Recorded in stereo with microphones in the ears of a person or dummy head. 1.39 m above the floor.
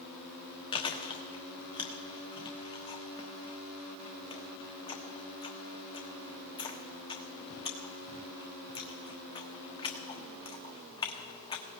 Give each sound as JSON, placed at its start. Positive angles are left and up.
{"t": 0.7, "sound": "chewing", "side_deg": 20, "distance_m": 1.2}